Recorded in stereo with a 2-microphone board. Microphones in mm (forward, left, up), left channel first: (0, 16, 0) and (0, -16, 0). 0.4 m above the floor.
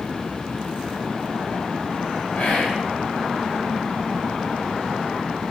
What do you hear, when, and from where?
2.4 s whispering: 60° left (ahead or behind), 2 m